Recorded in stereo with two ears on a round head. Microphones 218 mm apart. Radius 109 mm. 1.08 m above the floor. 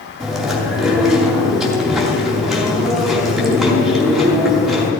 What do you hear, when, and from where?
0.2 s chewing: centre (ahead or behind), 3 m